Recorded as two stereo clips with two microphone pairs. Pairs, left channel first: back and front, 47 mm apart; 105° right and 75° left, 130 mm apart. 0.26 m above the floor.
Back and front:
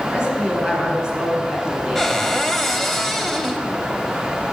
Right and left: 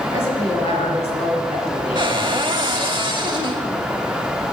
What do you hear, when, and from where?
0.1 s a woman speaking: 70° right, 2.5 m
1.9 s a cupboard door: 95° left, 0.8 m